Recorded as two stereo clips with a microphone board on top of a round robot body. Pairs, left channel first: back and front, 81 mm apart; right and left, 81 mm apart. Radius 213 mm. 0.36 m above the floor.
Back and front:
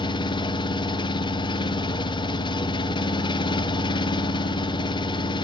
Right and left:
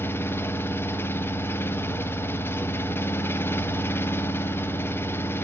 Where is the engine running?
150° right, 0.8 m.